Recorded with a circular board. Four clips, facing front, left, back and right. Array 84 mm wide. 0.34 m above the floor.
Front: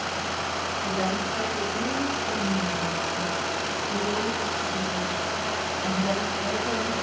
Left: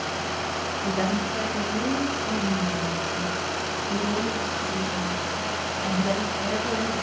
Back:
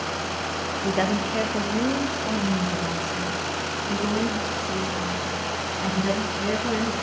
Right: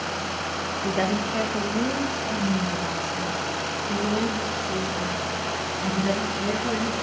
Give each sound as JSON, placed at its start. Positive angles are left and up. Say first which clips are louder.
{"t": 0.8, "sound": "a woman speaking", "louder": "right 2 dB, back 5 dB", "azimuth_deg": -155, "distance_m": 1.0}